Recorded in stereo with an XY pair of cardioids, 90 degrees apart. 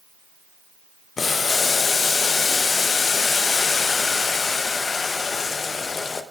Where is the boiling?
45° left, 0.7 m.